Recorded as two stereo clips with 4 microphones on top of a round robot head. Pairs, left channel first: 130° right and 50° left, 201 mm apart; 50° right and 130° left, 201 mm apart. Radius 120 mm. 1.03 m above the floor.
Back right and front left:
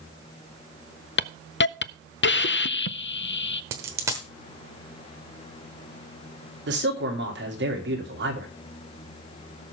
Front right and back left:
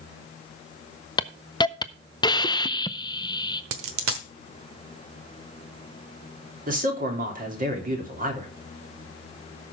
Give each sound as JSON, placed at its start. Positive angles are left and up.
{"t": 1.2, "sound": "a hiss", "azimuth_deg": -115, "distance_m": 0.6}
{"t": 3.7, "sound": "a dropped coin", "azimuth_deg": 125, "distance_m": 1.0}
{"t": 6.7, "sound": "a man speaking", "azimuth_deg": 80, "distance_m": 3.0}